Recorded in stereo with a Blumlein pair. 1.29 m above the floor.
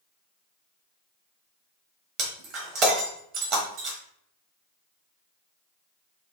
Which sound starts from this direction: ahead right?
Breaking glass, at 2.2 s.